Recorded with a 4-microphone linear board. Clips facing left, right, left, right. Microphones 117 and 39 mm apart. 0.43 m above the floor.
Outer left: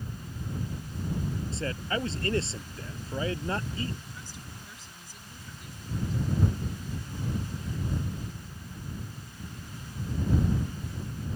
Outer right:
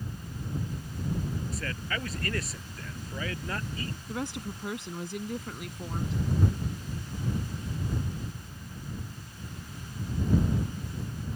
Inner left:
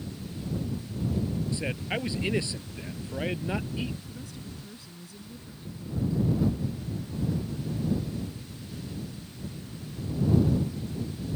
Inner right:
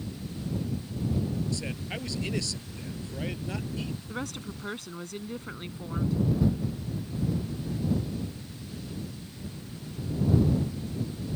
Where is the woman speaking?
75° right (ahead or behind).